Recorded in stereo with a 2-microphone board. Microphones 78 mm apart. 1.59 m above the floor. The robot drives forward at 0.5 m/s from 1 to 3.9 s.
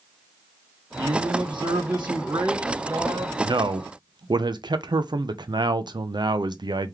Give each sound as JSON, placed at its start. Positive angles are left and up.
{"t": 1.0, "sound": "a man speaking", "side_deg": -75, "distance_m": 1.3}
{"t": 3.4, "sound": "a man speaking", "side_deg": -75, "distance_m": 0.5}